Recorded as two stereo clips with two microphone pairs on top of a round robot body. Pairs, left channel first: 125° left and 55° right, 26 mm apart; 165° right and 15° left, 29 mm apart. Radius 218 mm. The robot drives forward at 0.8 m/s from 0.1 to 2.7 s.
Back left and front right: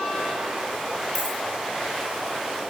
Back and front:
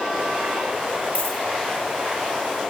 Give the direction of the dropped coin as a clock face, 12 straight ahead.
5 o'clock.